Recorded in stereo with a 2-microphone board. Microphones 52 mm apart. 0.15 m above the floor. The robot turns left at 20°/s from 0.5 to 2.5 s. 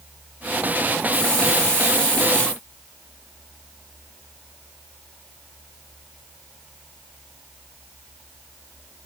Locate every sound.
1.1 s a hiss: 20° left (ahead or behind), 1.5 m; by 2.6 s 15° left (ahead or behind), 1.5 m